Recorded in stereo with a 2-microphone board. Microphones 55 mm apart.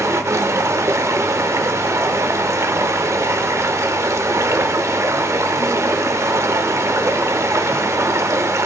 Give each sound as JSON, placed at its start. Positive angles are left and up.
{"t": 0.0, "sound": "running water", "side_deg": -60, "distance_m": 0.8}